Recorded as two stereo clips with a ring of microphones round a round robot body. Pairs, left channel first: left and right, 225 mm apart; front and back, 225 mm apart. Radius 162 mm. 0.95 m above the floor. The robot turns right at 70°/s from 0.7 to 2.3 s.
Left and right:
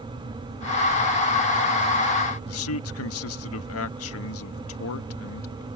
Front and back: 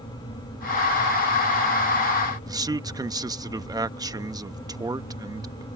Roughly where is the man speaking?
Left.